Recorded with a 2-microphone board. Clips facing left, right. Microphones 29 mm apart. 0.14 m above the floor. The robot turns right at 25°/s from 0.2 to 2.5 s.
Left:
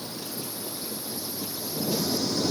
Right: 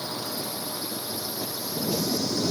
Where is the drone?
70° right; by 2.5 s 10° right.